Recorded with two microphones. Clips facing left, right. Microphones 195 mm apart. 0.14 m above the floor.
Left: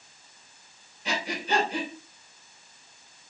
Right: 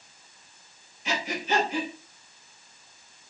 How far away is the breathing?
About 3 m.